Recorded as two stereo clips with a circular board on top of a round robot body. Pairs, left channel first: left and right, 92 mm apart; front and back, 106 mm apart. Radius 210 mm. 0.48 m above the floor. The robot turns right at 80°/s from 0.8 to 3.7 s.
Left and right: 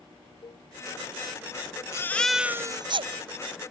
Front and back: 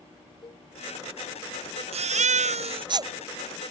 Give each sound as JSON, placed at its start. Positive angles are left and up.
{"t": 0.4, "sound": "a cowbell", "azimuth_deg": 45}
{"t": 1.9, "sound": "a baby crying", "azimuth_deg": 150}